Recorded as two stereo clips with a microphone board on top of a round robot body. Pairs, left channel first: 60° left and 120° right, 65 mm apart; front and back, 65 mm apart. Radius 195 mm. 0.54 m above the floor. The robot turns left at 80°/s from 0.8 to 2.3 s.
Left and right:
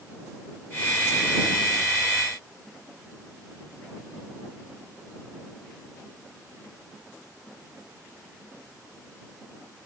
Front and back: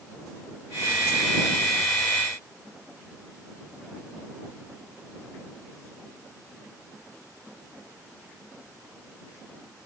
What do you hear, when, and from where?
Only background noise.